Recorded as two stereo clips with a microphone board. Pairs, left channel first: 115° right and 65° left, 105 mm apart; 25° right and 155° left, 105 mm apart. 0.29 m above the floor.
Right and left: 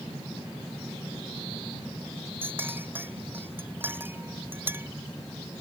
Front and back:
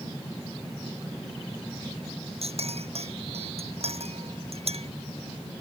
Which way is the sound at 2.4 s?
140° left.